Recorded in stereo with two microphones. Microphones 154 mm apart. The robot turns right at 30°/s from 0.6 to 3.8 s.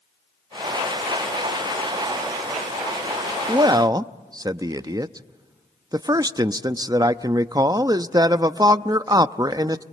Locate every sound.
3.5 s a man speaking: 30° right (ahead or behind), 0.6 m; by 9.8 s 25° right (ahead or behind), 0.6 m